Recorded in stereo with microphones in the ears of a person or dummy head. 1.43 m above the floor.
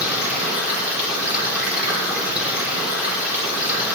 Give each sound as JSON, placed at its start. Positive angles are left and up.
{"t": 0.0, "sound": "running water", "side_deg": -5, "distance_m": 3.0}